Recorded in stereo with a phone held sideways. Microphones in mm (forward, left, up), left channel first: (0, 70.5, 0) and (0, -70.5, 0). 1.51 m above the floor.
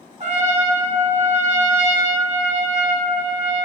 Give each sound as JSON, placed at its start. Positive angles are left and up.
{"t": 0.2, "sound": "a trumpet", "side_deg": -50, "distance_m": 1.1}